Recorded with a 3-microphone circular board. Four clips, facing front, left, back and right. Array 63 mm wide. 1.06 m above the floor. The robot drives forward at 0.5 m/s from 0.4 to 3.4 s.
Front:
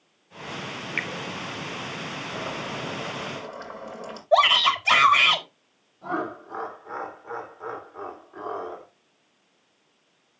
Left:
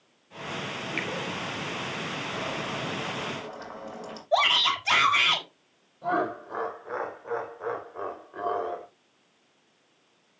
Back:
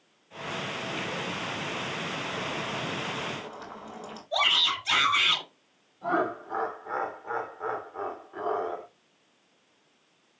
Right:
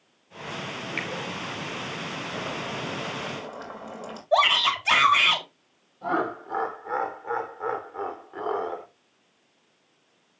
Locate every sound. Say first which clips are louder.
1.0 s a finger snap: even, front 4 dB; 10° right, 4 m
2.3 s boiling: right 1 dB, front 1 dB; 40° right, 6 m; by 4.2 s 45° right, 6 m
4.3 s a shout: right 3 dB, front 9 dB; 40° right, 4 m
6.0 s laughter: right 1 dB, back 2 dB; 110° right, 4 m